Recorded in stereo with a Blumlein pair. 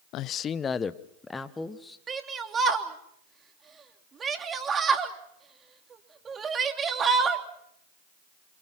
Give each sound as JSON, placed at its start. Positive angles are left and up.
{"t": 0.1, "sound": "a man speaking", "azimuth_deg": 40, "distance_m": 0.6}
{"t": 2.1, "sound": "a shout", "azimuth_deg": -20, "distance_m": 3.0}